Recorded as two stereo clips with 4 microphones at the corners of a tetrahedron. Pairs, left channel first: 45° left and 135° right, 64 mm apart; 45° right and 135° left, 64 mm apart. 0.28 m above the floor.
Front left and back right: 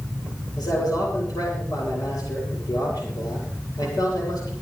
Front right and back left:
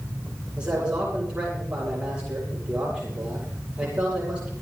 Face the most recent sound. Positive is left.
turn(degrees=60)